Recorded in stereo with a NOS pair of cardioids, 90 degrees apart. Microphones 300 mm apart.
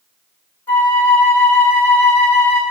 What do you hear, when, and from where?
0.7 s a flute: 5° left, 0.7 m